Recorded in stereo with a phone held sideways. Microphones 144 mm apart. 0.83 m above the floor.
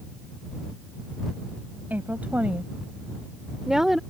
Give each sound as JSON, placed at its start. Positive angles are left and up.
{"t": 1.9, "sound": "a woman speaking", "side_deg": -10}